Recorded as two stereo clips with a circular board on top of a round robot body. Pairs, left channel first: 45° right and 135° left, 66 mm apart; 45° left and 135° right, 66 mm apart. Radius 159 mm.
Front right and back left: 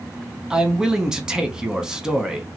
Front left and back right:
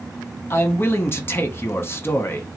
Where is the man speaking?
60° left, 1.2 m.